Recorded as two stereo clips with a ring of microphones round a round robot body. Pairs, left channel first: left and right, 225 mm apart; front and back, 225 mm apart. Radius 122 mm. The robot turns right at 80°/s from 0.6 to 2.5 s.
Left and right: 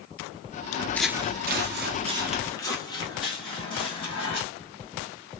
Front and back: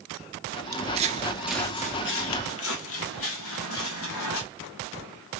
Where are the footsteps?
120° left, 0.6 m; by 4.4 s 20° left, 2 m.